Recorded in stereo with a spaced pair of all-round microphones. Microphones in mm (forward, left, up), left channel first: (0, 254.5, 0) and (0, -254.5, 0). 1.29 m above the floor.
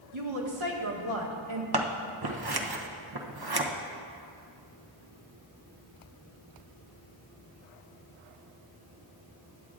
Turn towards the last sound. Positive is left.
turn(degrees=-45)  # may be behind; listen again after turning